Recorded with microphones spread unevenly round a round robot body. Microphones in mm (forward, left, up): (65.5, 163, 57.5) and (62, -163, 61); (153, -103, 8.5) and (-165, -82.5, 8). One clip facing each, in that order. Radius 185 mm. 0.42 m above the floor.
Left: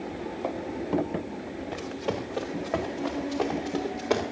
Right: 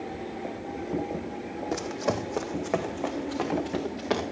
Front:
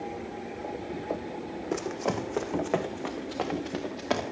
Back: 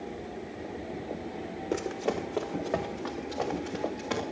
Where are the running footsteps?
90° right, 1.6 m; by 4.2 s 30° right, 3.5 m.